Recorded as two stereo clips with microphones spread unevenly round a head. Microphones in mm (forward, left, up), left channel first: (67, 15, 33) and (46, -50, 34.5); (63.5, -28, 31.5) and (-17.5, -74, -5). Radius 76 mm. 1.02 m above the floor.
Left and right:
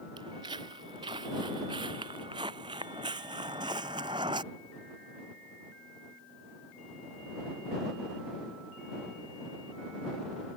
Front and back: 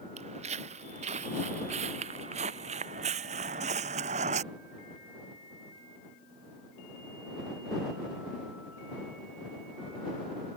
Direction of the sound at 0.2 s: 155° right.